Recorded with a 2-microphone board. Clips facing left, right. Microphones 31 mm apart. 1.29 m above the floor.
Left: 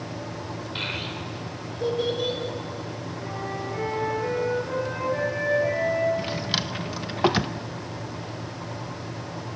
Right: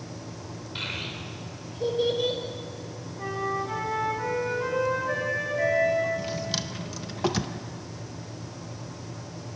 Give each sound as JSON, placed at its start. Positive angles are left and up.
{"t": 0.8, "sound": "a child speaking", "side_deg": 10, "distance_m": 3.5}
{"t": 3.2, "sound": "a flute", "side_deg": -85, "distance_m": 8.5}
{"t": 6.2, "sound": "a drawer", "side_deg": 30, "distance_m": 0.5}